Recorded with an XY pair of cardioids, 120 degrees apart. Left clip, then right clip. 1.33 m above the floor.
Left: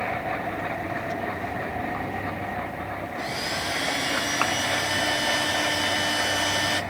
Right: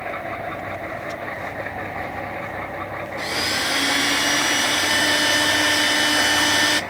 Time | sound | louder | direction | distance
3.2 | a blender | right 7 dB | 50° right | 1.5 m